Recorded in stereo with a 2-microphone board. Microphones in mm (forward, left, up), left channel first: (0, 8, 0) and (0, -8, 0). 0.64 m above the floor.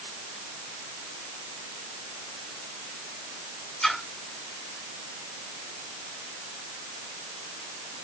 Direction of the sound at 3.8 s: 35° left (ahead or behind).